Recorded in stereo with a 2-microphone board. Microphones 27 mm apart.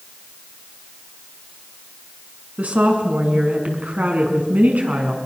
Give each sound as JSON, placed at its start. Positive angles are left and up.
{"t": 2.6, "sound": "a woman speaking", "side_deg": -65, "distance_m": 5.5}